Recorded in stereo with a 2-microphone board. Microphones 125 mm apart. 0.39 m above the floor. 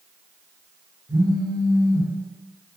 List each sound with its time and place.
1.1 s a phone buzzing: 15° right (ahead or behind), 1.2 m